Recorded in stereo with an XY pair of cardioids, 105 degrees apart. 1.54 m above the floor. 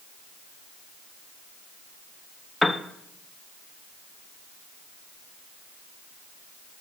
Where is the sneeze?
No sneeze in this recording.